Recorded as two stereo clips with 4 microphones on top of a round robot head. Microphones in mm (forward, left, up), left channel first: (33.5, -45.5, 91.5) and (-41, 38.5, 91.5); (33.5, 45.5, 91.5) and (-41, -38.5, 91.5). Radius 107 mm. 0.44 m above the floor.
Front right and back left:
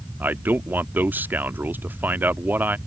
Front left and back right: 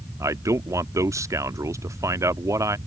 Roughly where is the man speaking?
Behind.